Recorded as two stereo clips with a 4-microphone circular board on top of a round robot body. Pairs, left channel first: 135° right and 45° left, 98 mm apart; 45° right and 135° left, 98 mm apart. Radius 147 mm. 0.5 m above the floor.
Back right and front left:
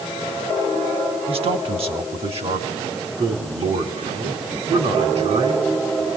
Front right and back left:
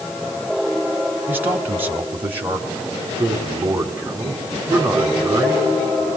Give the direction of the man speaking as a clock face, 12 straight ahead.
10 o'clock.